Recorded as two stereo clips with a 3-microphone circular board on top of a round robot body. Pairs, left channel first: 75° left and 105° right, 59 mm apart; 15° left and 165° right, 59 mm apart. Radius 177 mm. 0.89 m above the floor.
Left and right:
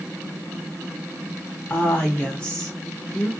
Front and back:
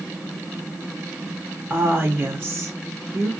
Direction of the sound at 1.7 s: 140° left.